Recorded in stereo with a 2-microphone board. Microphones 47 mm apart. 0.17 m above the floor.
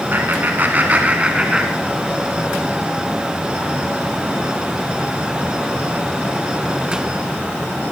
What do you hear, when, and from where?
0.1 s laughter: 45° right (ahead or behind), 1.5 m; by 2.2 s 5° right (ahead or behind), 1.8 m